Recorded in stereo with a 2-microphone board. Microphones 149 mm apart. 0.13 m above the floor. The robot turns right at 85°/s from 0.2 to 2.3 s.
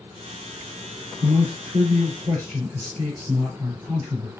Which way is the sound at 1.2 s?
120° right.